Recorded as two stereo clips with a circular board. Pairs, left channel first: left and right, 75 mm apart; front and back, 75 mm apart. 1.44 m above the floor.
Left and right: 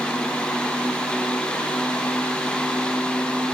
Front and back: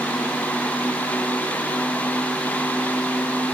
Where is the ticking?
No ticking in this recording.